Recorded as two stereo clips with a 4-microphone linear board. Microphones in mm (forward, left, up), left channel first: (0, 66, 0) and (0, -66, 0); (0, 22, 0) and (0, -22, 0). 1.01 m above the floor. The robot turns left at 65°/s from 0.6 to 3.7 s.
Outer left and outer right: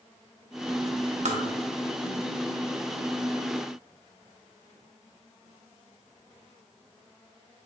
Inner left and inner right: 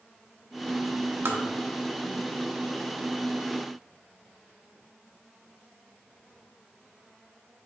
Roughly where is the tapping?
Right.